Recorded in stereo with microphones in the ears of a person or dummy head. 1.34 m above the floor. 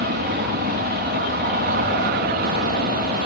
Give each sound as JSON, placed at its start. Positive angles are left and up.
{"t": 0.0, "sound": "an aircraft", "side_deg": -50}